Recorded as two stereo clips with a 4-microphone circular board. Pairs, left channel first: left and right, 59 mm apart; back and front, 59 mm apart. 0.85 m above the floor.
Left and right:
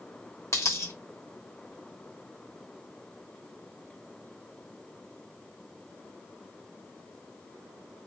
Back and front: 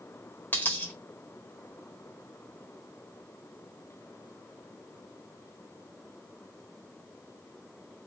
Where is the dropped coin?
125° left, 1.4 m.